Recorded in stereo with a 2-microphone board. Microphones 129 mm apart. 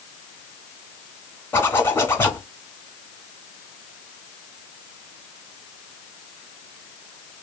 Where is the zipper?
15° left (ahead or behind), 1.1 m.